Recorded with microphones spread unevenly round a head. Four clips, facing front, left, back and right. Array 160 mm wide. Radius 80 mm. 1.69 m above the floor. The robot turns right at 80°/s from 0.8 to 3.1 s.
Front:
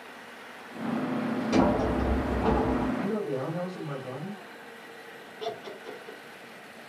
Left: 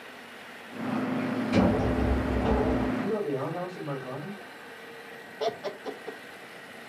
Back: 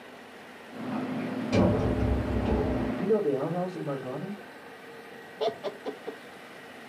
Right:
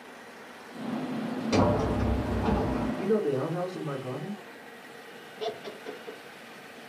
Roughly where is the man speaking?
Behind right.